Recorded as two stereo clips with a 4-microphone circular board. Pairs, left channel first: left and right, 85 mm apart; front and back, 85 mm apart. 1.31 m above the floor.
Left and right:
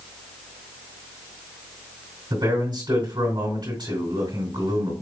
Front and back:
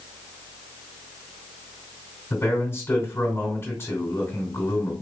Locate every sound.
2.3 s a man speaking: 60° right, 3 m